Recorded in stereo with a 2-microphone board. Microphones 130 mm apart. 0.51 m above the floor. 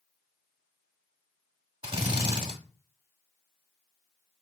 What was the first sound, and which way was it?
A drill, 40° right (ahead or behind).